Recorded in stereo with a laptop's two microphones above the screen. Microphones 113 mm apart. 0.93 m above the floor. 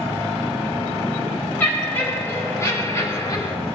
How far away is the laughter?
About 4.5 m.